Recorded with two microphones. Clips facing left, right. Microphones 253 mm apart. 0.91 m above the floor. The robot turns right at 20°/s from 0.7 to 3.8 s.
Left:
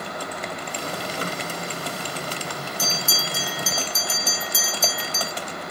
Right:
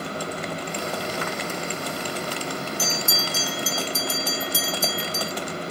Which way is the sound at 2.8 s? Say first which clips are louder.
Right 2 dB; 10° right (ahead or behind).